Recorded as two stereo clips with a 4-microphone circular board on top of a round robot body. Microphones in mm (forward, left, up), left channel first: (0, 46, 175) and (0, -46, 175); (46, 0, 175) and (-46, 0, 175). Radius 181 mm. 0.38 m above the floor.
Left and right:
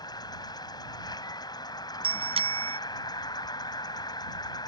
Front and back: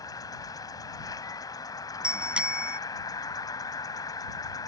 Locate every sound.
0.0 s an insect: 50° left
2.0 s a bicycle bell: 100° right